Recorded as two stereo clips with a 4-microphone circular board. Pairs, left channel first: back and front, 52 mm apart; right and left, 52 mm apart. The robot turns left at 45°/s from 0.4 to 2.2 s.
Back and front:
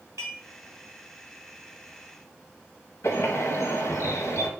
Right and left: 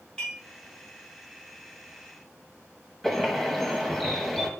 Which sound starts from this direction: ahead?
Dishes clattering, at 0.2 s.